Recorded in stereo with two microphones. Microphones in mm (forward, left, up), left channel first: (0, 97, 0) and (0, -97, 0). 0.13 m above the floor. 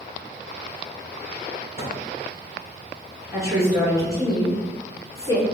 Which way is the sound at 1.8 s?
35° left (ahead or behind).